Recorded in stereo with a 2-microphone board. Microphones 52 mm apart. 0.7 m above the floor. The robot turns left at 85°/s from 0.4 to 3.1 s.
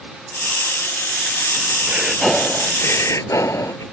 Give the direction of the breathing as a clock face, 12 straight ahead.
5 o'clock.